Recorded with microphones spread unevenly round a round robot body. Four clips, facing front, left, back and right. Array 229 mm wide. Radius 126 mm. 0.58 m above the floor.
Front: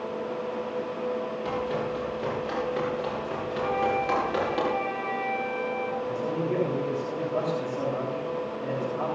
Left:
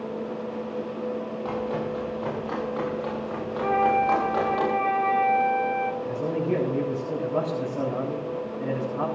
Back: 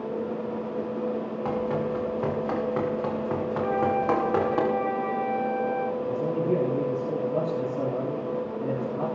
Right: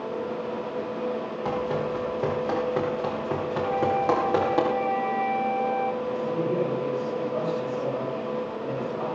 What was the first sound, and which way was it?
Running footsteps, 130° right.